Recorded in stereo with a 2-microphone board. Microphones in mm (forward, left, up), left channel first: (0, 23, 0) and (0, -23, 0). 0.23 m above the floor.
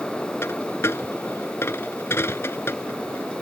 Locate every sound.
0.4 s a dropped coin: 75° left (ahead or behind)